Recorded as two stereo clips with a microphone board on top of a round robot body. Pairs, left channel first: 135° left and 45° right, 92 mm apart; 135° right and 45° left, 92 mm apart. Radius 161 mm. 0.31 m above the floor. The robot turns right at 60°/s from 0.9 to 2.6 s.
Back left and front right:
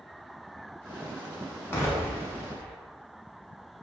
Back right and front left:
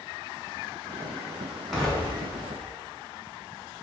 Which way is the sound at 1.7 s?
135° left.